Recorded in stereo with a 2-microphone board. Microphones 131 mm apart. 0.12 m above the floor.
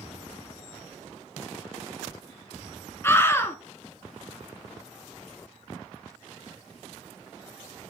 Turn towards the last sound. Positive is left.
turn(degrees=20)  # may be behind; listen again after turning